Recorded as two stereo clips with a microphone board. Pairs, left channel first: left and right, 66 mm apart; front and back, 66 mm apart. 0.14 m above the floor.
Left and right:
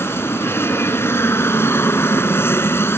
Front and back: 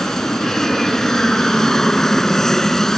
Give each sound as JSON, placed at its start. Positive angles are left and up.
{"t": 0.0, "sound": "an aircraft", "azimuth_deg": 80}